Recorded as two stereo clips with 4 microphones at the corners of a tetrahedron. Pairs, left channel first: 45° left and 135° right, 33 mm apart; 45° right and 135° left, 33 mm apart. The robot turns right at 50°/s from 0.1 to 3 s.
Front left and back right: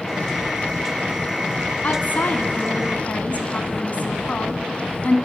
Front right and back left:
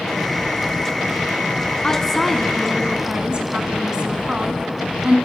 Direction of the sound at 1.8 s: 20° left.